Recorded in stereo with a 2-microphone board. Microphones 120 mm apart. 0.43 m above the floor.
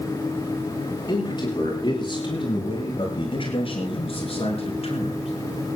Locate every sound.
1.1 s a man speaking: 40° left (ahead or behind), 9.5 m; by 5.3 s 65° left (ahead or behind), 5.5 m